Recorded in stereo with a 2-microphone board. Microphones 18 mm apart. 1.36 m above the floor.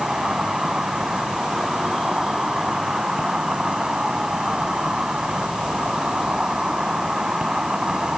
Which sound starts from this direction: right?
An insect, at 0.0 s.